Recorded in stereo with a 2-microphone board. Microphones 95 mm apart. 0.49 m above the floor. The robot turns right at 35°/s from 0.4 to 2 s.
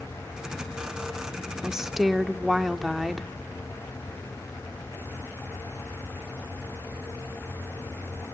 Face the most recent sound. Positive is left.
turn(degrees=0)  # may be behind; listen again after turning